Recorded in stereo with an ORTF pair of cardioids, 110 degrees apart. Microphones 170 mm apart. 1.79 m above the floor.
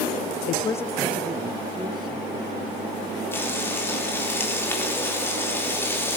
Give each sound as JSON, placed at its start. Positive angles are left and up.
{"t": 0.5, "sound": "a man speaking", "azimuth_deg": 50, "distance_m": 0.7}
{"t": 3.3, "sound": "frying", "azimuth_deg": 15, "distance_m": 3.5}